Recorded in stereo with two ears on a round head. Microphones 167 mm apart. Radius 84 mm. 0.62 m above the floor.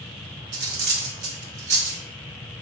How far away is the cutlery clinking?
About 0.7 m.